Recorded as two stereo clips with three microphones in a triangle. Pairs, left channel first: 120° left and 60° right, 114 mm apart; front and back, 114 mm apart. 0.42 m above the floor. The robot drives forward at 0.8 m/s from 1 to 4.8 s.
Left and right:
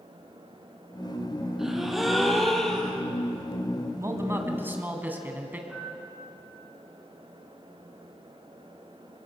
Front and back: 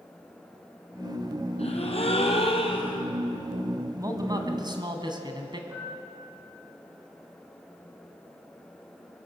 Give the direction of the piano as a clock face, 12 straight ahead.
4 o'clock.